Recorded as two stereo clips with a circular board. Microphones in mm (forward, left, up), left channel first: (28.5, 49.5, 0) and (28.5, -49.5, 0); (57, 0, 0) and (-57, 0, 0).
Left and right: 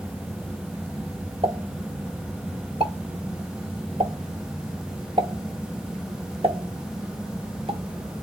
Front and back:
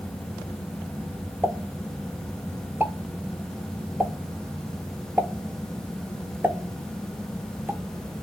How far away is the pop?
About 0.9 m.